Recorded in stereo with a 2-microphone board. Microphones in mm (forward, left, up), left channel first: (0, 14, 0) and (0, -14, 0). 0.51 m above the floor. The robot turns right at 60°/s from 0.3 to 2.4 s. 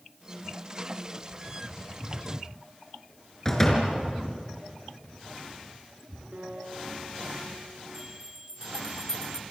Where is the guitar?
80° right, 7.5 m.